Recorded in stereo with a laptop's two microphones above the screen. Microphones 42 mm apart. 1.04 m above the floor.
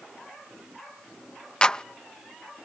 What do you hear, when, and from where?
1.6 s a clap: 25° left (ahead or behind)